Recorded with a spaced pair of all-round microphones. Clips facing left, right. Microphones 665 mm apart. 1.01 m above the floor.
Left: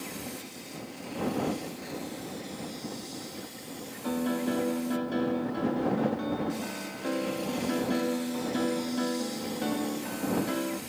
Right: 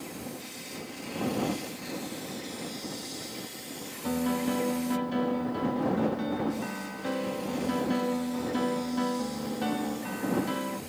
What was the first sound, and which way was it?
A piano, 30° right (ahead or behind).